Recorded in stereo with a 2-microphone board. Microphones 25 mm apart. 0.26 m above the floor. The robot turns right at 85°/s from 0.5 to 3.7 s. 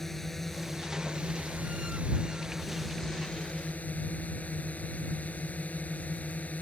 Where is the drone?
170° left; by 6.6 s 80° left.